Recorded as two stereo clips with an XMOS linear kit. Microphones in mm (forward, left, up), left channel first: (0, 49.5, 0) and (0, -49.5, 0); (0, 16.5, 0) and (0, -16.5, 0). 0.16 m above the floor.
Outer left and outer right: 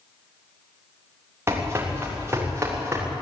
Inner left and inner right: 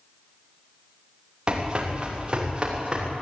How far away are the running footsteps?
About 6.5 m.